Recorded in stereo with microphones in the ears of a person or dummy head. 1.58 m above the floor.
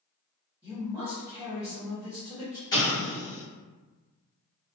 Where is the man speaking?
10° right (ahead or behind), 1.2 m.